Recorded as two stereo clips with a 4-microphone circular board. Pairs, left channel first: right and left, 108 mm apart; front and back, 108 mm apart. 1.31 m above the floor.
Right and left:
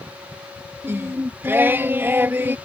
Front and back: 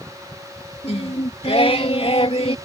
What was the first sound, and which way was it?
Singing, 20° left.